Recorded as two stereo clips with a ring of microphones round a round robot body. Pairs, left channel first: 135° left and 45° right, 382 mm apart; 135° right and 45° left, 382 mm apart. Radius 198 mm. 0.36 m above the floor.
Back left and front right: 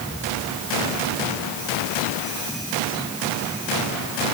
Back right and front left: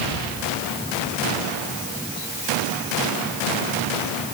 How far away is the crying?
No crying in this recording.